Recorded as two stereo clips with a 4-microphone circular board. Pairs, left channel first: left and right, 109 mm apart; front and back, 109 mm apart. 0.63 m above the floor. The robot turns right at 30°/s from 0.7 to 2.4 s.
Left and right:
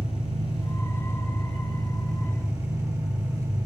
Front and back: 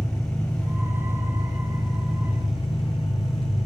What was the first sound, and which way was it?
An engine running, 80° right.